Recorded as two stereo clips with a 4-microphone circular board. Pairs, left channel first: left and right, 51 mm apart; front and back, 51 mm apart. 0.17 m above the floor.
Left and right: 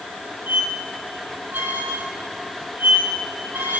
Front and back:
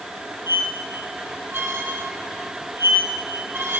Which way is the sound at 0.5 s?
140° right.